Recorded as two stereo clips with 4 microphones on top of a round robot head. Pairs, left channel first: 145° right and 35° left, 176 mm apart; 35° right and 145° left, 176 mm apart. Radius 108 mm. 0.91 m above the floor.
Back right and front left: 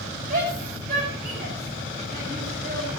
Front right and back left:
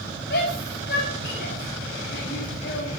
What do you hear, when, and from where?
0.3 s a shout: 5° right, 8.5 m